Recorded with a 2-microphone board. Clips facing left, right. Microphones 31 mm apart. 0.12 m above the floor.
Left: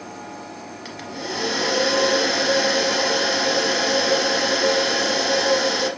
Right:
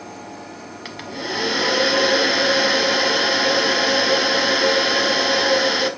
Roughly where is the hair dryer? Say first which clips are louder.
Right 3 dB; right.